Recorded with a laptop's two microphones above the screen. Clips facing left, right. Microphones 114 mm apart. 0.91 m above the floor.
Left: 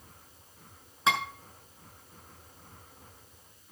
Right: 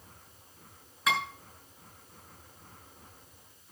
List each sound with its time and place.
1.1 s dishes clattering: 25° left (ahead or behind), 7 m